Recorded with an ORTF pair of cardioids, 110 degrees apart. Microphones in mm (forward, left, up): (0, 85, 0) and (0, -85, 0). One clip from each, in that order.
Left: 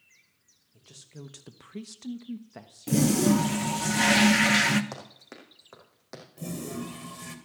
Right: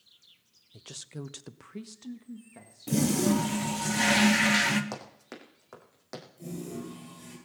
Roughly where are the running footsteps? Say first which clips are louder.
Right 1 dB; ahead.